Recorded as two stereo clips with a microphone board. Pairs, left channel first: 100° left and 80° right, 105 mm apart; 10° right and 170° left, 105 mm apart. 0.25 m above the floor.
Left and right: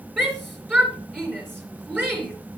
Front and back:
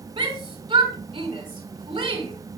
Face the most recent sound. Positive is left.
turn(degrees=-150)